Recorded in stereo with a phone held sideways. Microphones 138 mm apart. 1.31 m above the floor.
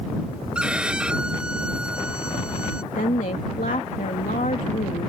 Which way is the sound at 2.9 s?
75° left (ahead or behind).